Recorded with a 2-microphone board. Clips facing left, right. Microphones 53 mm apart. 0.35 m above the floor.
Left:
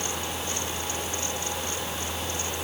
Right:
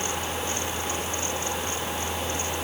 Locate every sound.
Only background noise.